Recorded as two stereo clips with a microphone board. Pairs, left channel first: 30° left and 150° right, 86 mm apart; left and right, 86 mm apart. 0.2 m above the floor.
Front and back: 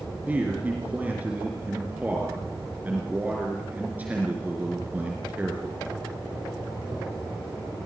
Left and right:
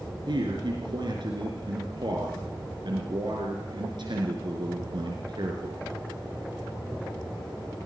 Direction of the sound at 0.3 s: 80° right.